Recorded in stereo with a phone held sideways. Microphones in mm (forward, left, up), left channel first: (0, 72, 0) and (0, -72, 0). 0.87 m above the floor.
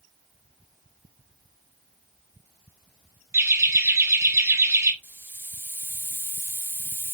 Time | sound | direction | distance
3.3 | laughter | 20° right (ahead or behind) | 0.8 m
5.0 | a hiss | 15° right (ahead or behind) | 0.9 m